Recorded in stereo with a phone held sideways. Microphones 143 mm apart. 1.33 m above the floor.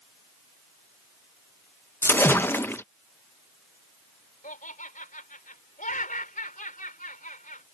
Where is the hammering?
No hammering in this recording.